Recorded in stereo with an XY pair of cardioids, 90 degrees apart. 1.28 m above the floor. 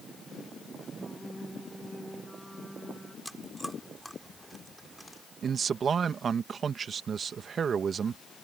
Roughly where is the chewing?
Ahead.